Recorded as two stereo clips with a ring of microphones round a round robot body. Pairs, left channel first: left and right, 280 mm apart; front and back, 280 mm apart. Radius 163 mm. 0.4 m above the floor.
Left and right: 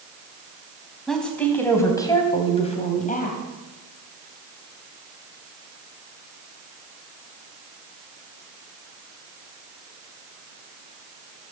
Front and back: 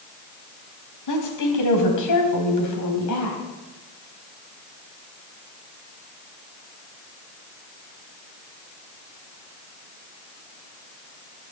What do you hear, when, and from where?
1.1 s a woman speaking: straight ahead, 3 m; by 3.4 s 35° left, 3 m